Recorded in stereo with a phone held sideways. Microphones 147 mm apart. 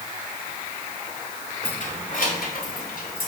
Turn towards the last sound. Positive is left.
turn(degrees=85)